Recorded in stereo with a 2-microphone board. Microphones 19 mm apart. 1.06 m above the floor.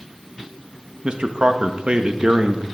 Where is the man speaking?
55° right (ahead or behind), 1.6 m.